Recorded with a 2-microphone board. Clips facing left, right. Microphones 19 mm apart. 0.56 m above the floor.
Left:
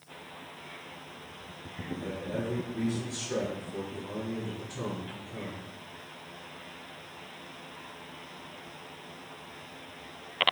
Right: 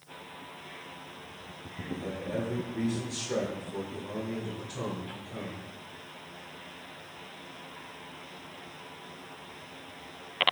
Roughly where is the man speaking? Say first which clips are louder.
Right 1 dB; right.